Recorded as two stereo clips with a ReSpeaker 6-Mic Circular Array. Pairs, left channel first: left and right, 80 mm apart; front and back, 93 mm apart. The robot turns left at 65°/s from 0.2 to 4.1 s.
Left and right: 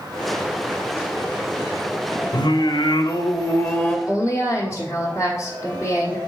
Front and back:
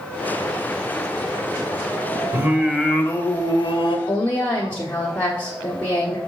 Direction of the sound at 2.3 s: 120° left.